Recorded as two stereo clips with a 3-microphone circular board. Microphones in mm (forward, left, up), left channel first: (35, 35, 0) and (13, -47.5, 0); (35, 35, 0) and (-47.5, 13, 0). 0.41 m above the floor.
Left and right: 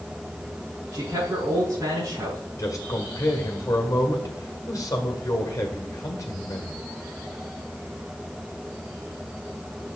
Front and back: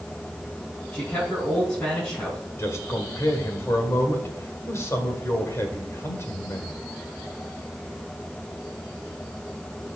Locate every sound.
0.9 s a man speaking: 55° right, 4 m
2.6 s a man speaking: 45° left, 1.9 m